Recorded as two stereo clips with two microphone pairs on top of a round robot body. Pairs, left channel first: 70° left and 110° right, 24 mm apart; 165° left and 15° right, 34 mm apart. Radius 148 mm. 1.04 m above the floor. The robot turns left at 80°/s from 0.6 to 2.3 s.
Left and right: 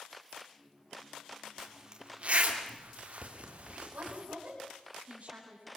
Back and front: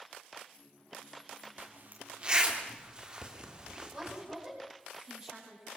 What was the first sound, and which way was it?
A zipper, 20° right.